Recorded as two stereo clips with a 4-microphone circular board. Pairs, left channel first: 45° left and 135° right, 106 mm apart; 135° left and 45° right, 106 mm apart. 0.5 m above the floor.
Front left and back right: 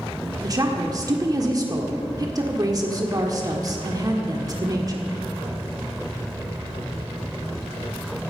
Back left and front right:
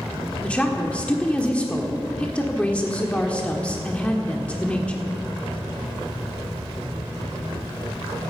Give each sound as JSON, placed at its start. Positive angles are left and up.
{"t": 0.4, "sound": "a woman speaking", "azimuth_deg": -155, "distance_m": 1.3}